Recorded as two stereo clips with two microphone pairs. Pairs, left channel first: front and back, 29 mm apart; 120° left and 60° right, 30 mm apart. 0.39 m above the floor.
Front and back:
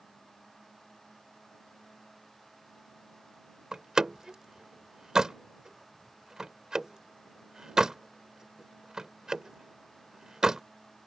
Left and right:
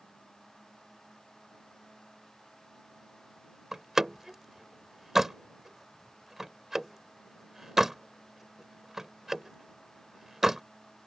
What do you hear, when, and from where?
3.7 s a door slam: 130° right